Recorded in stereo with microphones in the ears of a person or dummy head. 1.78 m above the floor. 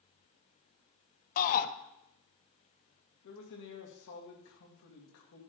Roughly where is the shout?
Left.